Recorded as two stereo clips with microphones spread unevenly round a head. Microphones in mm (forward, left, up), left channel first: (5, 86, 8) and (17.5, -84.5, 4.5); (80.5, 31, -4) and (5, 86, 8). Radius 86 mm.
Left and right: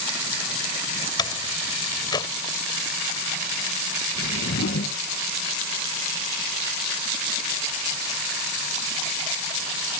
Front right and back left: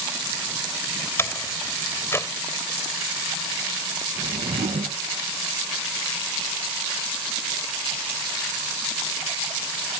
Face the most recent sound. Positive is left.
turn(degrees=125)